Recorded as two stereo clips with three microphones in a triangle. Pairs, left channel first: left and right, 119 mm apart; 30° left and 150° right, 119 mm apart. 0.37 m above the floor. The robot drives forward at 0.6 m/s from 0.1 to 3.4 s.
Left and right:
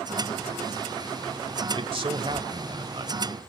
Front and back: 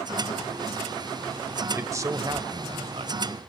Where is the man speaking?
85° right, 1.3 m; by 3.4 s 135° right, 1.6 m.